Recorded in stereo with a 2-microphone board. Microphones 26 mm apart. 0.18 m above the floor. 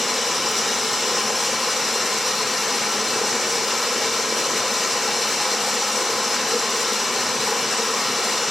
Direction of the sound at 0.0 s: 5° left (ahead or behind).